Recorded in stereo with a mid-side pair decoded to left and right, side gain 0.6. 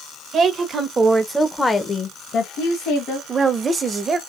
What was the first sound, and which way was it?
A woman speaking, 45° right.